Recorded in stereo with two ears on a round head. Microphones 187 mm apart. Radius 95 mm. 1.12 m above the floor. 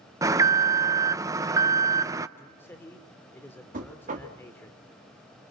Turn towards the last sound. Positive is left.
turn(degrees=-35)  # may be behind; listen again after turning